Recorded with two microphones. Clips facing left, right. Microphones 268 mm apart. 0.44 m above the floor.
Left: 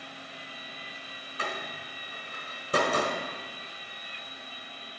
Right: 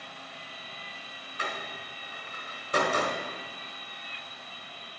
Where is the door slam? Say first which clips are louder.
Left 1 dB; 35° left (ahead or behind), 1.6 m.